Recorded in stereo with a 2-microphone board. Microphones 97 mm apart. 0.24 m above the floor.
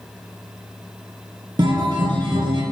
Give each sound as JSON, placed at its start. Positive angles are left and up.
{"t": 1.6, "sound": "a guitar", "side_deg": -55, "distance_m": 1.9}